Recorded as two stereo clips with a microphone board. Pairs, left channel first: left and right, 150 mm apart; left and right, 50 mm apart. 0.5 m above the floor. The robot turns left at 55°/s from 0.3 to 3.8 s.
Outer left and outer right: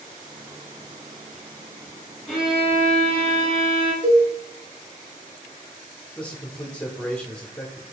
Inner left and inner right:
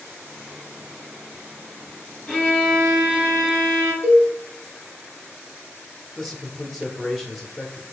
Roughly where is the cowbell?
Right.